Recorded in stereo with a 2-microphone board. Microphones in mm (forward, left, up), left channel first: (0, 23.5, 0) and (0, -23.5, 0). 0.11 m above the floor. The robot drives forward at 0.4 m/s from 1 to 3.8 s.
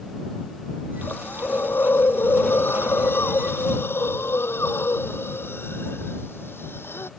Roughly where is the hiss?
Left.